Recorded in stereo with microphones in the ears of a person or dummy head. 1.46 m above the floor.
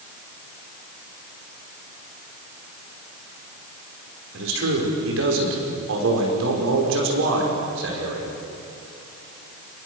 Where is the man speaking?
75° right (ahead or behind), 5.5 m.